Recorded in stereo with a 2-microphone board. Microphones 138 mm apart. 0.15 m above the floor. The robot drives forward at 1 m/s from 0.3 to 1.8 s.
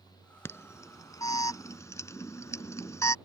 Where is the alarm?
20° left (ahead or behind).